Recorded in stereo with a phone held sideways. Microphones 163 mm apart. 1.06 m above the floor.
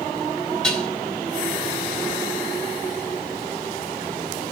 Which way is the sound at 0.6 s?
5° left (ahead or behind).